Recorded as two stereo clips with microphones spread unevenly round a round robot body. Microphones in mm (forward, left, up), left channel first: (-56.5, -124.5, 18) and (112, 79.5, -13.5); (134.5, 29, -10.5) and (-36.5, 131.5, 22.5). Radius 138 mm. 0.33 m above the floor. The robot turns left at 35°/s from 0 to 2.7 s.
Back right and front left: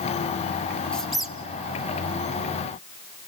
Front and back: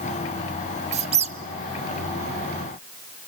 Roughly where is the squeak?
Behind left.